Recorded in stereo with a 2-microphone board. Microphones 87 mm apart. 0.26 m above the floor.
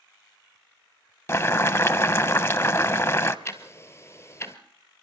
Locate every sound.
1.3 s boiling: 30° left (ahead or behind), 0.7 m
3.5 s ticking: 30° left (ahead or behind), 1.3 m